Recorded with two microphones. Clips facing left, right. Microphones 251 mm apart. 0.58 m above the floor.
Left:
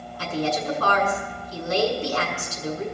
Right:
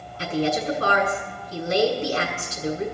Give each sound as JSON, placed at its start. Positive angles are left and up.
{"t": 0.2, "sound": "a woman speaking", "side_deg": -25, "distance_m": 5.5}